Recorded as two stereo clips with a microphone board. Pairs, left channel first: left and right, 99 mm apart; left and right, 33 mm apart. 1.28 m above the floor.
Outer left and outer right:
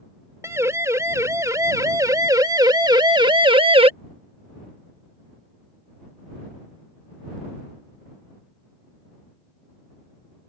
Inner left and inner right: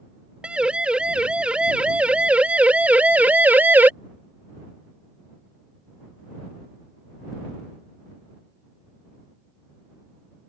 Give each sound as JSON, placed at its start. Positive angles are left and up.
{"t": 0.4, "sound": "a siren", "side_deg": -30}